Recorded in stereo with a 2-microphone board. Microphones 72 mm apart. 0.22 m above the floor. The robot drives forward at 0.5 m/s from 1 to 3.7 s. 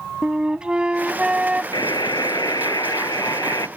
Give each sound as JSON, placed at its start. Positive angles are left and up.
{"t": 0.2, "sound": "a flute", "side_deg": -15}
{"t": 1.7, "sound": "a buzzer", "side_deg": 75}